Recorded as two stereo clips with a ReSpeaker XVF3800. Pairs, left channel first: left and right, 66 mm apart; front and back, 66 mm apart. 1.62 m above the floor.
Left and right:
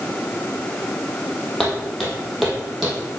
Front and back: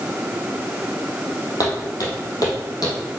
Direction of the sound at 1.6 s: 5° left.